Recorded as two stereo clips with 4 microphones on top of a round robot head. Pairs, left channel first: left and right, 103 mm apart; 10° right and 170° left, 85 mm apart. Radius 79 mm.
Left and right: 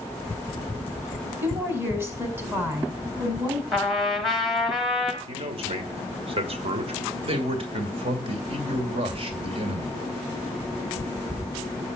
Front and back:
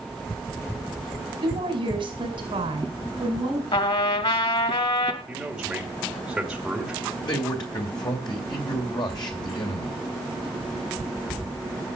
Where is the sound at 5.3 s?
105° right, 2.5 m.